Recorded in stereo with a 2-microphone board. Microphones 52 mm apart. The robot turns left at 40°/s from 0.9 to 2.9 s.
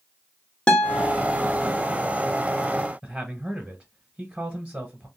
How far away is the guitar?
About 0.6 m.